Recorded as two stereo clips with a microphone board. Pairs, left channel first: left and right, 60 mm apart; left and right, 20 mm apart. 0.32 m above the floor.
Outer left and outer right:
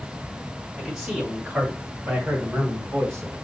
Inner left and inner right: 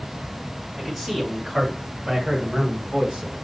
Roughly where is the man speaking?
Centre.